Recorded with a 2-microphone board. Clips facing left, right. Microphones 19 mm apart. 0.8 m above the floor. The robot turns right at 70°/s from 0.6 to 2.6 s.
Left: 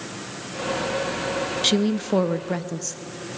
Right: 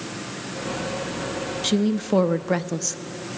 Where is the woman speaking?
155° left, 0.6 m; by 3.0 s 140° right, 0.6 m.